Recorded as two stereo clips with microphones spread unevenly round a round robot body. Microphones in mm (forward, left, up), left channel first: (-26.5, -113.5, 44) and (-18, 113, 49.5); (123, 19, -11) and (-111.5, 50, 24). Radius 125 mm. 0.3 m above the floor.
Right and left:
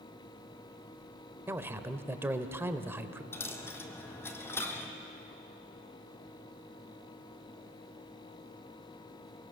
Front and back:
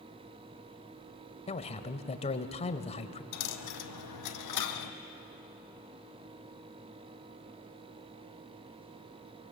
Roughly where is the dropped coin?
Ahead.